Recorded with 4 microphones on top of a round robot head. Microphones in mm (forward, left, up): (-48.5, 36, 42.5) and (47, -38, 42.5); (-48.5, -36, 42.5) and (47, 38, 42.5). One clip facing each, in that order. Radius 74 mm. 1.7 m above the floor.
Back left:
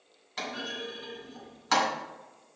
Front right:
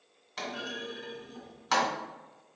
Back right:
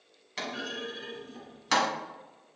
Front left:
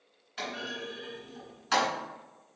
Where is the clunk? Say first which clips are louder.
Back left 1 dB, back right 1 dB; 130° right, 1.9 m.